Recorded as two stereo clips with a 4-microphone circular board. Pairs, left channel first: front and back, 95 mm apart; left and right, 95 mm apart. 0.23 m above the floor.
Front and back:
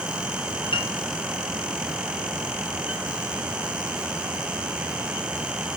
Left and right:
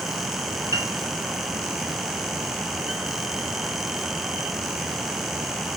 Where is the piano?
35° right, 2 m.